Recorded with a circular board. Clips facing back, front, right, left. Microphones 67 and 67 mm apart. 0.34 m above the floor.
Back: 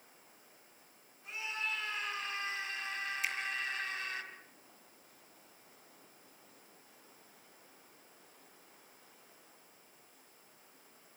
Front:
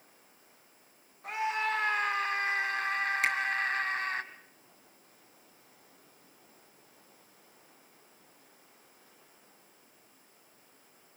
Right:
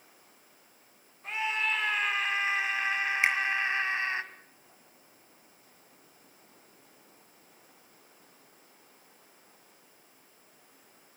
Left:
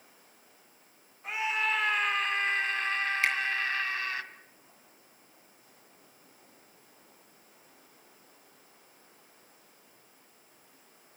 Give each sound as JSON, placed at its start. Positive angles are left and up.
{"t": 1.2, "sound": "a scream", "azimuth_deg": 5, "distance_m": 3.0}
{"t": 3.2, "sound": "a finger snap", "azimuth_deg": -20, "distance_m": 3.5}